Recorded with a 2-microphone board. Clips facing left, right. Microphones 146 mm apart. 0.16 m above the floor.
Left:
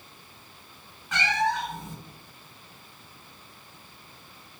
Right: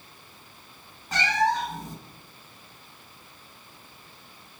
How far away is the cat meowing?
About 0.6 m.